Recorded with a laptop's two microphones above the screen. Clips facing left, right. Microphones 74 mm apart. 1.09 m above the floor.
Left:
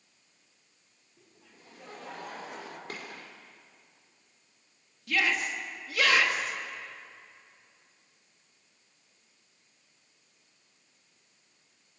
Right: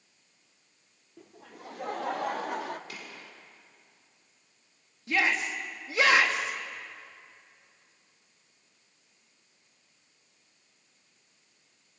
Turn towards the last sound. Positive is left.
turn(degrees=-30)  # may be behind; listen again after turning